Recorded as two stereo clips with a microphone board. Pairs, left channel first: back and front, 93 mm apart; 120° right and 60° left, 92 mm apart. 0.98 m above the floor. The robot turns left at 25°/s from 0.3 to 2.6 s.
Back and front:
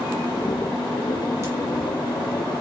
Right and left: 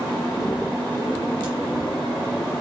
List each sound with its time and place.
1.4 s a crack: 50° left, 1.4 m